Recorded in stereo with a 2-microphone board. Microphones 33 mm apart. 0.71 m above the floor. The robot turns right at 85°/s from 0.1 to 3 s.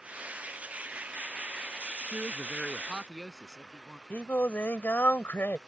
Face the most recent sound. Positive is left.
turn(degrees=75)  # may be behind; listen again after turning